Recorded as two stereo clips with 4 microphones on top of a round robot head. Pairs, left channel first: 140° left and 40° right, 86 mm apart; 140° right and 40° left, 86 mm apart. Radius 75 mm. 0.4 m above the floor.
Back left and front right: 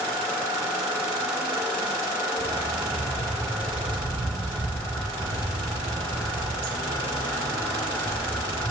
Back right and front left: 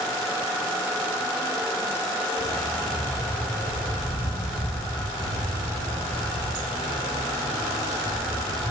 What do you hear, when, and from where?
2.4 s a dog barking: 80° right, 4.5 m; by 8.7 s 105° right, 8 m